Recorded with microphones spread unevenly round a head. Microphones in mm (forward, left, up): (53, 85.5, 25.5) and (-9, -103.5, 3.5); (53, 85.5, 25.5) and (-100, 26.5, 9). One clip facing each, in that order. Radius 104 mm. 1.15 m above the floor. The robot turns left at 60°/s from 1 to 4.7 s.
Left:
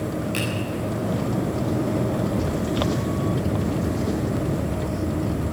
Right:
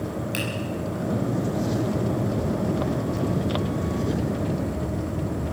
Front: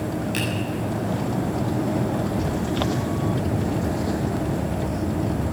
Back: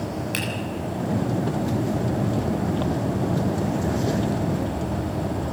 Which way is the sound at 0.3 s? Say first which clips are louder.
Left 2 dB, front 3 dB; straight behind.